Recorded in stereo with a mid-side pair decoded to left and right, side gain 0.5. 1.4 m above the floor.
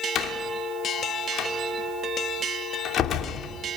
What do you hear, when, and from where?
0.1 s a door slam: 60° left, 3 m